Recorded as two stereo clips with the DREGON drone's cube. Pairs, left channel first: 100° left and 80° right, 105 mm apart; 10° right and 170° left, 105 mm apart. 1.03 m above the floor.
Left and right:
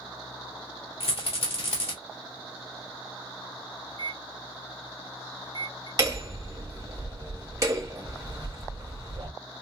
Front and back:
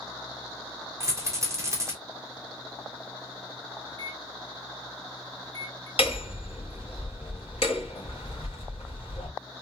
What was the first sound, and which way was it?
A rattle, 110° left.